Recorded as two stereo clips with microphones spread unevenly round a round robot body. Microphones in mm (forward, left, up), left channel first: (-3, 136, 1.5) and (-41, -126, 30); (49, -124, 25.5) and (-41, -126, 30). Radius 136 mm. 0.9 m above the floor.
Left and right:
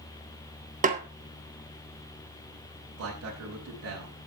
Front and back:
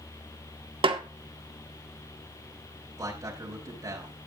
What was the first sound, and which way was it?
A snare drum, 160° right.